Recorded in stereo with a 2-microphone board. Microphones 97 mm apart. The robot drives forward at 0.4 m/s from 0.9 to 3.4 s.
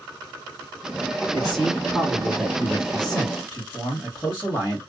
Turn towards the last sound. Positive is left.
turn(degrees=0)  # may be behind; listen again after turning